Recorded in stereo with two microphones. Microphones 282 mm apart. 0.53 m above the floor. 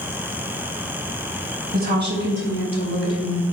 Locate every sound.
1.7 s a woman speaking: 35° right (ahead or behind), 3.5 m; by 3.4 s 60° right (ahead or behind), 3 m